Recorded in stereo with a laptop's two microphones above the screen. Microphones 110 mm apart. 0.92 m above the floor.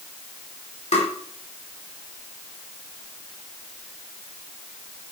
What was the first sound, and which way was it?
Tapping, 80° left.